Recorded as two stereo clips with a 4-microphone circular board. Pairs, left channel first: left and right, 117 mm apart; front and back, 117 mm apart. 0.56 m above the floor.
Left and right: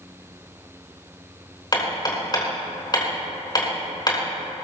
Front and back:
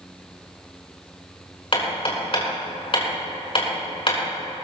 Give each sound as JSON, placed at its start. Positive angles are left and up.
{"t": 1.7, "sound": "hammering", "azimuth_deg": 35, "distance_m": 5.0}